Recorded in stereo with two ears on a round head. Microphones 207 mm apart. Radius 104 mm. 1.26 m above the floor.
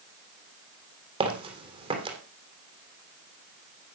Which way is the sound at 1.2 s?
25° right (ahead or behind).